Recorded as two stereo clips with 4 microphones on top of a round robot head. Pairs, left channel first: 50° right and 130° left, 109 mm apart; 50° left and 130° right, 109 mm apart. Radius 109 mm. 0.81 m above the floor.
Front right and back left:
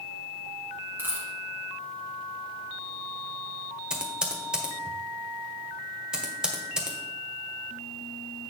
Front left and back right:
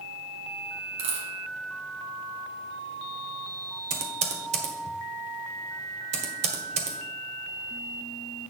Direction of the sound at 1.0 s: 160° right.